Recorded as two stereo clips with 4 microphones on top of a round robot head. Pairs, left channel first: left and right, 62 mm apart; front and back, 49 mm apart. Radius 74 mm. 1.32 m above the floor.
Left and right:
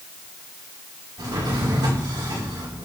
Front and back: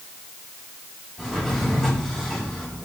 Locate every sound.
1.2 s a drawer: 90° right, 5.5 m